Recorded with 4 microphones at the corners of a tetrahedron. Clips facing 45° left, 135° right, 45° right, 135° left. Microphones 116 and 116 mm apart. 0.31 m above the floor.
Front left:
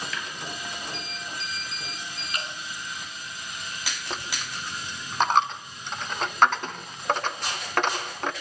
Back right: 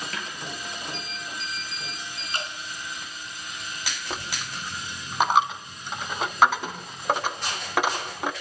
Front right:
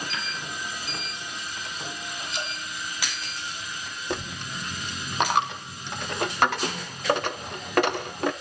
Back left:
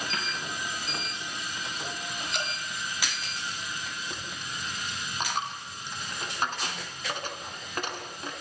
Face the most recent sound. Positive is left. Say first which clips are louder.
# even, front right 7 dB
turn(degrees=-50)